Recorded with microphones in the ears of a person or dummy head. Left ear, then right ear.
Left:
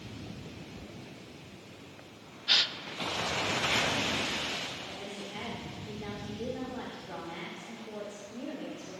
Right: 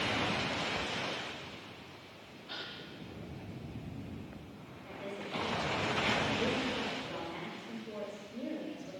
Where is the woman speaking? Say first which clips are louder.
Left 1 dB; 15° left (ahead or behind), 5 m.